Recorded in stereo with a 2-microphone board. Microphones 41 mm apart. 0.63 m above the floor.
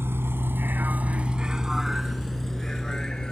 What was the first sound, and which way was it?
A vehicle, 85° right.